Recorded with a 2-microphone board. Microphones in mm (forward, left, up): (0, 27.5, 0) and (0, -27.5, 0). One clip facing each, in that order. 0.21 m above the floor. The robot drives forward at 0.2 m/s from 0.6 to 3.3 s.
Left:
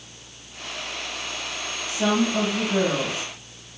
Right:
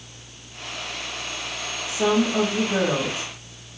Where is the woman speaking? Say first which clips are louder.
Right 1 dB; 25° right (ahead or behind), 1.5 m.